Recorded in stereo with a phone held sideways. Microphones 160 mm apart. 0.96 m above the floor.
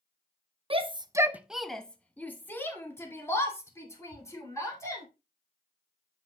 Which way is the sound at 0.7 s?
35° right (ahead or behind).